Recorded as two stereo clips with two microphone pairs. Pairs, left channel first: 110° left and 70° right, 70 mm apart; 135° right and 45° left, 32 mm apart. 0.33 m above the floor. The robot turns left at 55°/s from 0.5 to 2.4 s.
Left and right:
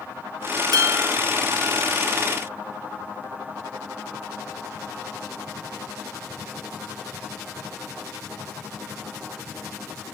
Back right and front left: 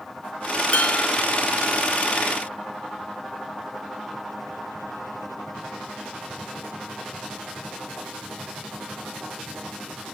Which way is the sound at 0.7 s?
90° right.